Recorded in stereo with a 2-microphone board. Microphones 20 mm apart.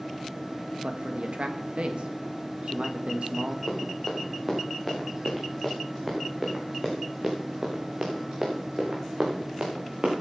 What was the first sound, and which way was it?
A man speaking, 60° right (ahead or behind).